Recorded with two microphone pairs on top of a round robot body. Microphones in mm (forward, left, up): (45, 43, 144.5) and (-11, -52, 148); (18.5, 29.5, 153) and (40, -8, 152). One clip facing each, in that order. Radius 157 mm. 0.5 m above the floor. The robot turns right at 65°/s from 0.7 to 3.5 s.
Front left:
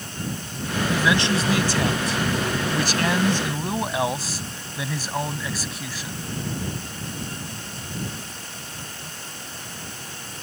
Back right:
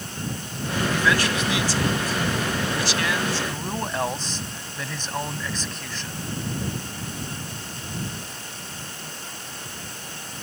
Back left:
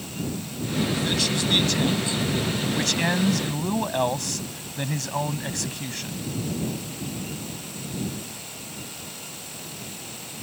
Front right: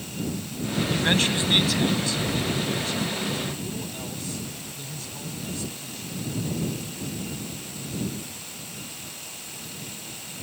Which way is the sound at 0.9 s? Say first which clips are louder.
Front left 2 dB, front right 2 dB; 25° right.